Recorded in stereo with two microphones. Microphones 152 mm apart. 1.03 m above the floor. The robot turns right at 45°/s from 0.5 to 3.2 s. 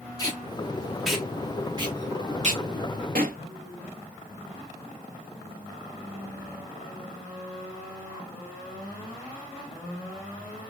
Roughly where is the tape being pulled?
Left.